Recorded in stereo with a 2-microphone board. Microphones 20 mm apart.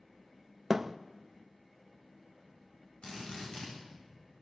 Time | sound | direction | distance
0.7 | a thud | 20° right (ahead or behind) | 0.7 m
3.0 | a drill | 65° left (ahead or behind) | 9.5 m